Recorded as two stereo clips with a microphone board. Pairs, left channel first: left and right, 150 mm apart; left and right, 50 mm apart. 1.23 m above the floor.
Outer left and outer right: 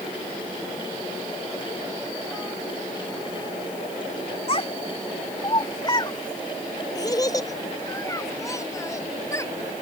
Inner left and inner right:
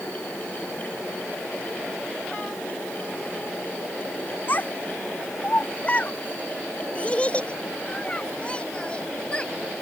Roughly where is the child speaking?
Left.